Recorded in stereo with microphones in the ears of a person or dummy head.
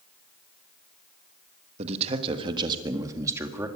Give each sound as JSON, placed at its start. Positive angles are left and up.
{"t": 1.8, "sound": "a man speaking", "side_deg": -40, "distance_m": 1.6}